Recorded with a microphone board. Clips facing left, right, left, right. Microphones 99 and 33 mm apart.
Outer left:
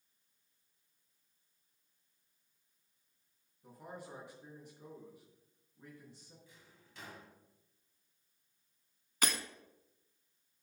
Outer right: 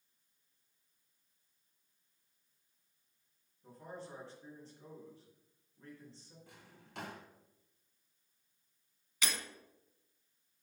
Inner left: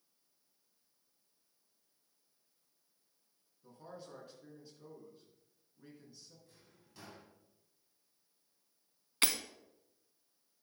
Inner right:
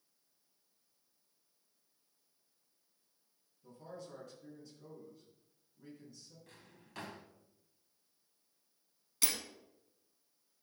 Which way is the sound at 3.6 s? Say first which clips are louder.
Outer right 1 dB, inner right 1 dB; 15° left (ahead or behind).